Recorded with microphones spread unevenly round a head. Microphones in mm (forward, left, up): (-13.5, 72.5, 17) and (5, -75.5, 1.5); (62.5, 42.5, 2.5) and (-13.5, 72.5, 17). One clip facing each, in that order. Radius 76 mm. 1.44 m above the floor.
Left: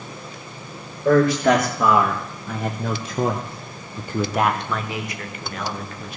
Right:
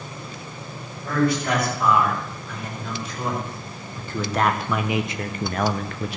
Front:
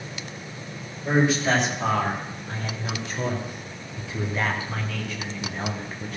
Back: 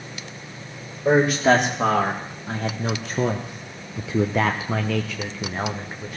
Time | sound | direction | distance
1.1 | a man speaking | 130° left | 2 m